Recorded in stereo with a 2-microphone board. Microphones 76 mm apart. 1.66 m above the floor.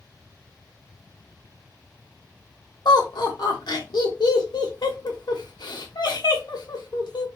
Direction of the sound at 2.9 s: 70° left (ahead or behind).